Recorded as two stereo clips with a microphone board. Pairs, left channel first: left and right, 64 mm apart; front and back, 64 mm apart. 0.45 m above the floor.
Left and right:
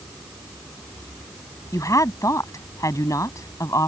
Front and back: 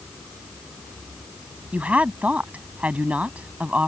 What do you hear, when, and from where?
1.7 s a woman speaking: 115° left